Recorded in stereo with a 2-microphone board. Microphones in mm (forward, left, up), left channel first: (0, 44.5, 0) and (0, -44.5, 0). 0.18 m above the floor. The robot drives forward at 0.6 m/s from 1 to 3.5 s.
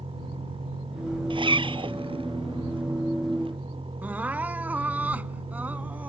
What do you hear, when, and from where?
0.0 s a vehicle: 80° right; by 6.1 s 75° right (ahead or behind)
1.3 s a zipper: 70° right (ahead or behind); by 1.9 s 75° right (ahead or behind)
4.0 s crying: 20° right (ahead or behind)